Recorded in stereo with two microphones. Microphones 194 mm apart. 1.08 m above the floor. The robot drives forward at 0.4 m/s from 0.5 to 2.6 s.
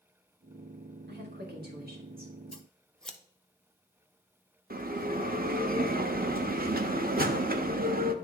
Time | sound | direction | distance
1.1 | a woman speaking | 60° right (ahead or behind) | 1.8 m
2.5 | scissors | 5° left (ahead or behind) | 0.6 m
4.7 | a bell | 50° right (ahead or behind) | 0.6 m